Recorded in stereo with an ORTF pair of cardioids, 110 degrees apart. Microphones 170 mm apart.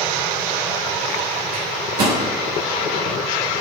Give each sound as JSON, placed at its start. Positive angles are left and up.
{"t": 1.5, "sound": "a microwave", "azimuth_deg": -65, "distance_m": 3.0}